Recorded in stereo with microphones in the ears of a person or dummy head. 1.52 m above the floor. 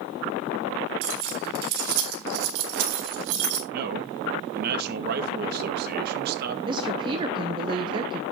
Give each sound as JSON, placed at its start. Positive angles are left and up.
{"t": 1.0, "sound": "keys jangling", "side_deg": -75, "distance_m": 3.5}
{"t": 3.7, "sound": "a man speaking", "side_deg": -55, "distance_m": 1.9}
{"t": 6.7, "sound": "a woman speaking", "side_deg": -25, "distance_m": 1.0}